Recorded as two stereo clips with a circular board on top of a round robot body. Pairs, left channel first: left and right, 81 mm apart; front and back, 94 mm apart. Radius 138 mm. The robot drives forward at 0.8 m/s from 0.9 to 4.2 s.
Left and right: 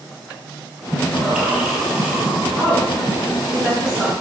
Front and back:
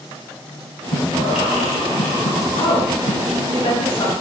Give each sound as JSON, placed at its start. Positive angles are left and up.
{"t": 0.9, "sound": "breathing", "azimuth_deg": -10, "distance_m": 4.5}
{"t": 2.5, "sound": "a woman speaking", "azimuth_deg": 0, "distance_m": 5.0}